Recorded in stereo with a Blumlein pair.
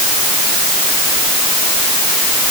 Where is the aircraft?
No aircraft in this recording.